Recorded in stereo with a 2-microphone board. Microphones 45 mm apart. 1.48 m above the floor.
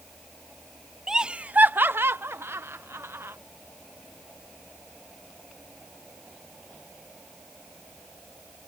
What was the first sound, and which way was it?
Laughter, 10° right (ahead or behind).